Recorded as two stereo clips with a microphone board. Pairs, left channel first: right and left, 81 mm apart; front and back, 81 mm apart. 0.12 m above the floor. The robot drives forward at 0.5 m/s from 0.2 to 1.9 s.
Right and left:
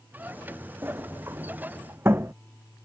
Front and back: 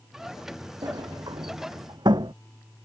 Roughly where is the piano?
No piano in this recording.